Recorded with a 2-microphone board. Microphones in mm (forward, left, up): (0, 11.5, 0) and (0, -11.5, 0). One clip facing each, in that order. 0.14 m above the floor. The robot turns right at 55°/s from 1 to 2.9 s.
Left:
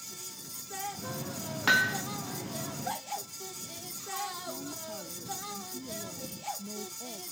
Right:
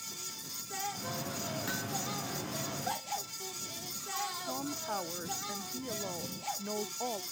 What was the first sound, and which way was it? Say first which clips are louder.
Hammering: left 17 dB; 50° left (ahead or behind).